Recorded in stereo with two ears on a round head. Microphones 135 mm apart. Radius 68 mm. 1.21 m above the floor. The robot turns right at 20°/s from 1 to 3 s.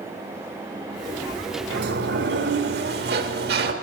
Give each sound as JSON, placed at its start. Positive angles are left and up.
{"t": 1.7, "sound": "a sliding door", "side_deg": -75, "distance_m": 1.3}